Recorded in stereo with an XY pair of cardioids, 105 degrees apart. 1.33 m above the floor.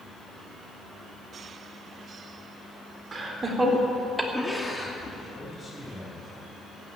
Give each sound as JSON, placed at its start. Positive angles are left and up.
{"t": 3.1, "sound": "laughter", "azimuth_deg": -30, "distance_m": 3.5}
{"t": 5.3, "sound": "a man speaking", "azimuth_deg": 20, "distance_m": 6.5}